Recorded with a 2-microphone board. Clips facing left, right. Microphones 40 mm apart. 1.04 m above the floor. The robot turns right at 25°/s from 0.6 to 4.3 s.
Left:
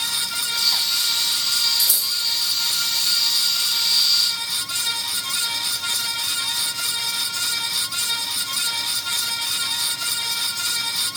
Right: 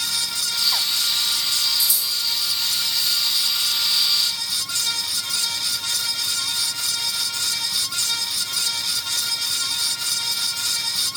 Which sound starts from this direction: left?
Scissors, at 1.8 s.